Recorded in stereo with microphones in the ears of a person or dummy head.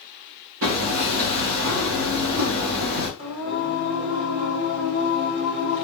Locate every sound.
0.6 s hammering: 70° right (ahead or behind), 1.0 m
3.2 s singing: 35° right (ahead or behind), 1.8 m